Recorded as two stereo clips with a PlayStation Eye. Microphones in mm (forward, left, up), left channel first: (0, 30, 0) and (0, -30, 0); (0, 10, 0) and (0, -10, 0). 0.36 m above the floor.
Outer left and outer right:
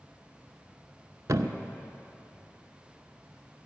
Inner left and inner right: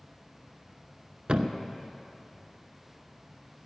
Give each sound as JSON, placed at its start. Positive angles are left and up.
{"t": 1.3, "sound": "a thud", "side_deg": -65, "distance_m": 0.6}